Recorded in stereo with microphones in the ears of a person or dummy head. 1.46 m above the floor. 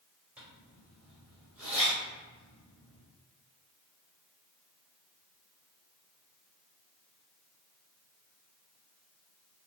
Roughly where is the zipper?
Centre.